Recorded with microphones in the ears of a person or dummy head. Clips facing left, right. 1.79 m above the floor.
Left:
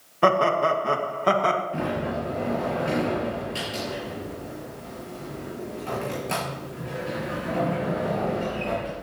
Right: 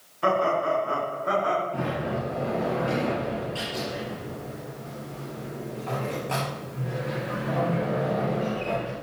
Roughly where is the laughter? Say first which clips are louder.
Left 3 dB; left.